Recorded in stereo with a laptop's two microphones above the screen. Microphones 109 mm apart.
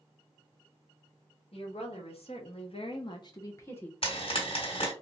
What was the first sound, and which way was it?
A woman speaking, 65° left (ahead or behind).